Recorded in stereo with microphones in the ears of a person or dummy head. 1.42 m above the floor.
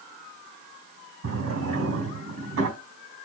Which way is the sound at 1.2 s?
70° right (ahead or behind).